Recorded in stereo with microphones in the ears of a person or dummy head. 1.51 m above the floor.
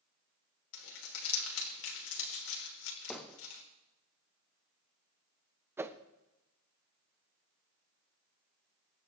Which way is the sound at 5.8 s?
15° right (ahead or behind).